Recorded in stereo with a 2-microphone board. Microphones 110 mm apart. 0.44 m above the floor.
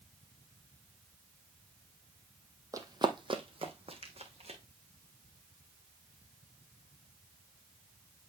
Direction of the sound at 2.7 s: 30° right (ahead or behind).